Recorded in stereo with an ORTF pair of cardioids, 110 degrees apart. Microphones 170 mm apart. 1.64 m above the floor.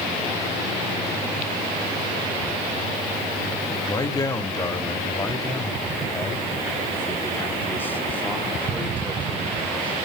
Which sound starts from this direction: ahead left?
A man speaking, at 3.9 s.